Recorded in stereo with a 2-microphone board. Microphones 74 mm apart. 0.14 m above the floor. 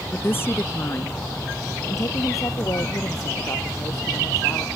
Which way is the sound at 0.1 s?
25° left (ahead or behind).